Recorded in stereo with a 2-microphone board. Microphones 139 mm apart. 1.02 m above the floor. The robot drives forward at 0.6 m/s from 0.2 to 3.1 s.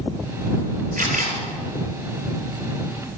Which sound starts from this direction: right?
A camera shutter, at 1.0 s.